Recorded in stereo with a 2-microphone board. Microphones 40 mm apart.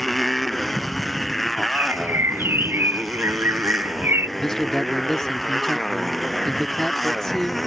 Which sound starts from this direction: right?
A bird, at 1.8 s.